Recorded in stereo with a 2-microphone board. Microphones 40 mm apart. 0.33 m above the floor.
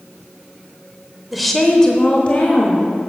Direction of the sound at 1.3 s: 5° right (ahead or behind).